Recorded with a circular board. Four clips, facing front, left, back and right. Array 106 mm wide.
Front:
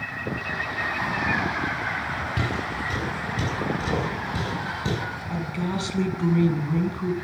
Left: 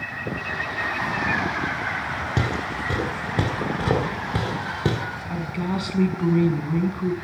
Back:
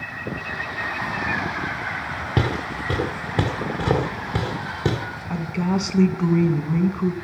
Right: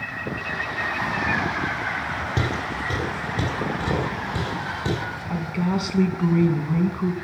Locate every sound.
2.4 s footsteps: 165° left, 1.3 m; by 5.0 s 135° left, 3 m
5.3 s a woman speaking: 165° right, 1.0 m